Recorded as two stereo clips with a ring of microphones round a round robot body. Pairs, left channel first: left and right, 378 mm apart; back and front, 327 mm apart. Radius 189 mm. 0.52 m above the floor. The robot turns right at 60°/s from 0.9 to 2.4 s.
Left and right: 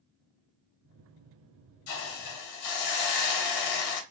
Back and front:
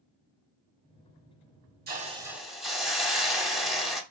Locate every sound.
1.9 s a hiss: 55° left, 1.1 m; by 4.0 s 90° left, 1.1 m